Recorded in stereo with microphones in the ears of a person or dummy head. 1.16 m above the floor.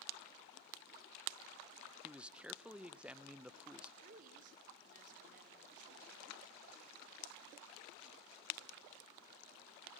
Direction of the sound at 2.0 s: 5° right (ahead or behind).